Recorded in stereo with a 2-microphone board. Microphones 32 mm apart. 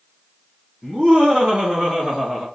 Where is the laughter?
30° right (ahead or behind), 2 m; by 2.5 s 5° right (ahead or behind), 2.5 m.